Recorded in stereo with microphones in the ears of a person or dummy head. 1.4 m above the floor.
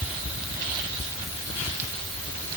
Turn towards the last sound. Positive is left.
No sound to turn to.